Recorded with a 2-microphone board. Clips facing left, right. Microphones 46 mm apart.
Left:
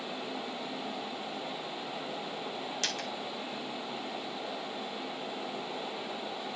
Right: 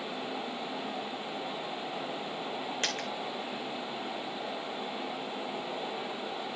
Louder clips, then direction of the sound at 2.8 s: Right 2 dB; 35° right (ahead or behind).